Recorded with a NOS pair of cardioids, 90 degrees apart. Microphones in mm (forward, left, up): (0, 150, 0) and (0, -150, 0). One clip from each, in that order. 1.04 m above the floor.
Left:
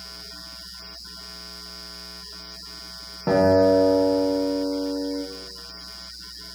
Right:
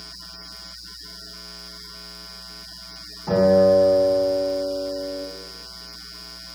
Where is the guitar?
60° left, 1.1 m.